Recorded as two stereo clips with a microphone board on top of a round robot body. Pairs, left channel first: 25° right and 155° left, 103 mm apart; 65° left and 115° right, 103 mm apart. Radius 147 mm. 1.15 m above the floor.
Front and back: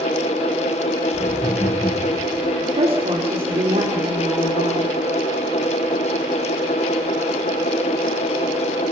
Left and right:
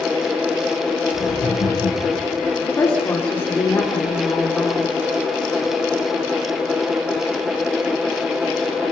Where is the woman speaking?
135° left, 3.5 m.